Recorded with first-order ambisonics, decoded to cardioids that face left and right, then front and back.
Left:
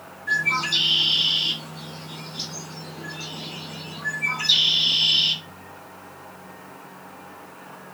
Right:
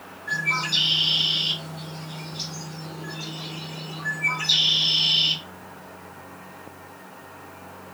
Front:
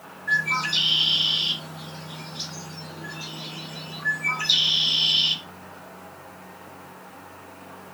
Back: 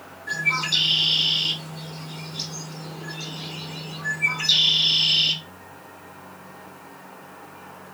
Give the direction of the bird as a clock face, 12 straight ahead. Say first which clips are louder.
Left 2 dB, even; 7 o'clock.